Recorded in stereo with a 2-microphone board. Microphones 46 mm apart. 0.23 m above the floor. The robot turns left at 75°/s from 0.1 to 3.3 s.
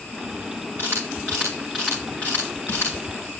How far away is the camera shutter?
About 6.5 m.